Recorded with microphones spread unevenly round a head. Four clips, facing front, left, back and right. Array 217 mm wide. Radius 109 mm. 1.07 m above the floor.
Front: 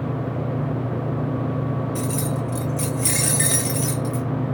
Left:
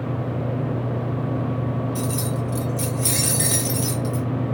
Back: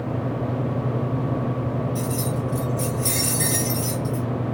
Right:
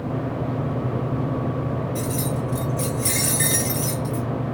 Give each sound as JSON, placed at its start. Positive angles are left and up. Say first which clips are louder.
{"t": 1.9, "sound": "keys jangling", "louder": "even, front 1 dB", "azimuth_deg": 10, "distance_m": 0.9}